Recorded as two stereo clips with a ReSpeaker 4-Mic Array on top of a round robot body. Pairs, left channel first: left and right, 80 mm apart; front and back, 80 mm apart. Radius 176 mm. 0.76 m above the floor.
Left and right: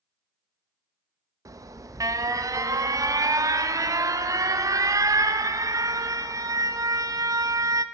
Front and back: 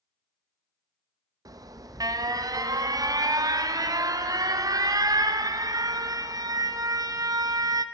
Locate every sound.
1.4 s an alarm: 135° right, 0.5 m